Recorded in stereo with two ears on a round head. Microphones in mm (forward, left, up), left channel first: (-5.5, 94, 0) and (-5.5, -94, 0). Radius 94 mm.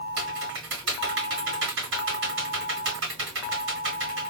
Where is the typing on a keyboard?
60° right (ahead or behind), 1.8 m.